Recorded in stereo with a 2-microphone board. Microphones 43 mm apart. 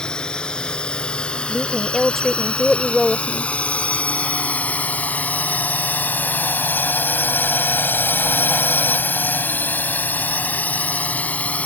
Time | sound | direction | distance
0.0 | a drone | 20° left (ahead or behind) | ?
1.5 | a woman speaking | 5° left (ahead or behind) | ?